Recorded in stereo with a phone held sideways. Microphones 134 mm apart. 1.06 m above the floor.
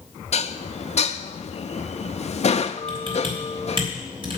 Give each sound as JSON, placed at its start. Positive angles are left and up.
{"t": 0.3, "sound": "dishes clattering", "side_deg": 55, "distance_m": 0.6}
{"t": 2.9, "sound": "typing on a keyboard", "side_deg": -40, "distance_m": 3.0}